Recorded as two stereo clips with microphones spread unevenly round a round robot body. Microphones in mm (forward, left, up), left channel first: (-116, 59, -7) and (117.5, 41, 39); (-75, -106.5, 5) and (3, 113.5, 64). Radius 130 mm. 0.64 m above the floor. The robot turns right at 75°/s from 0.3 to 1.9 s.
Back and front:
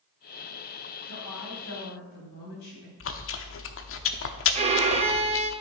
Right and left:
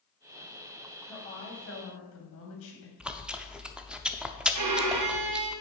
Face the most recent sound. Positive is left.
turn(degrees=60)